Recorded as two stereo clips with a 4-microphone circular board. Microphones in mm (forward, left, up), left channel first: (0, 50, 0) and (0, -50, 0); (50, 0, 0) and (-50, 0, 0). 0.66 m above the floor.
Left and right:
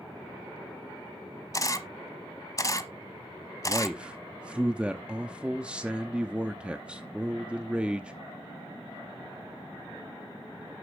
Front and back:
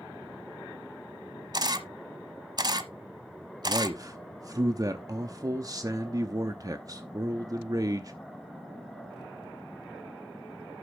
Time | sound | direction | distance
1.5 | a camera shutter | 140° left | 0.9 m
3.6 | a man speaking | 165° right | 0.8 m